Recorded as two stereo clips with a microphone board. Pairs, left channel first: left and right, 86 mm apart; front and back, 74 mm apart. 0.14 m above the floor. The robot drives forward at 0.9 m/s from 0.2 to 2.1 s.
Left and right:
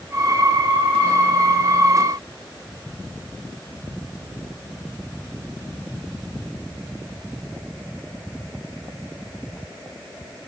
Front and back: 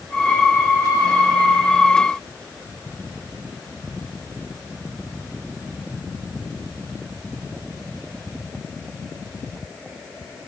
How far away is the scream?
I don't hear a scream.